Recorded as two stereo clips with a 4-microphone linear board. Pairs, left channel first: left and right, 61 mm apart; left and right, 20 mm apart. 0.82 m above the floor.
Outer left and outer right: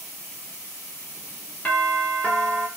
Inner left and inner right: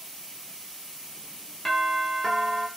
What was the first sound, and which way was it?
A doorbell, 20° left (ahead or behind).